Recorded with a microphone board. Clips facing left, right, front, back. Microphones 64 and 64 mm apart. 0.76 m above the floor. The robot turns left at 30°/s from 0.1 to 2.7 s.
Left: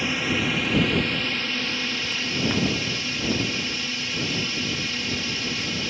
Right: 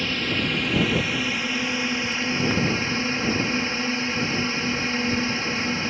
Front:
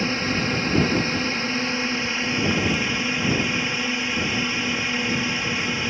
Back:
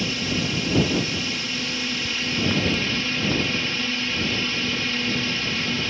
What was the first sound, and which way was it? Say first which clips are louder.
A drone: left 1 dB, front 2 dB; 20° left.